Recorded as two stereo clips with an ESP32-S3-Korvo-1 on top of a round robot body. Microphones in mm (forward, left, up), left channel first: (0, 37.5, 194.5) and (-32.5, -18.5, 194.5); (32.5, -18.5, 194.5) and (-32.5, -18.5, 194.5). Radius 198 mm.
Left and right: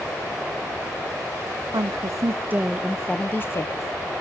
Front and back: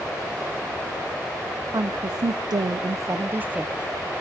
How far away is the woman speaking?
About 0.8 m.